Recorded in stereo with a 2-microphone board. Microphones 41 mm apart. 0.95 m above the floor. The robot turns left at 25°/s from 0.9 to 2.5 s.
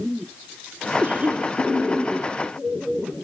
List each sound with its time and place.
1.0 s a cough: 45° right (ahead or behind), 3 m; by 1.5 s 35° right (ahead or behind), 3 m